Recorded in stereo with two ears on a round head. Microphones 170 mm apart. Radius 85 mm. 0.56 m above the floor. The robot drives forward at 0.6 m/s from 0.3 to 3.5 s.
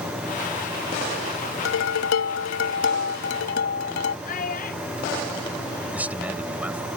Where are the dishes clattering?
80° left; by 4.2 s 60° left (ahead or behind).